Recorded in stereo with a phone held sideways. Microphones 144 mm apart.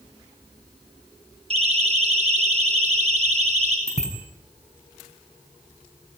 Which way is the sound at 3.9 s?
50° left (ahead or behind).